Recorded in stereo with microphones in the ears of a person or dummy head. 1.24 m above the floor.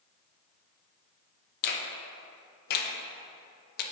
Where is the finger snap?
45° left (ahead or behind), 0.6 m.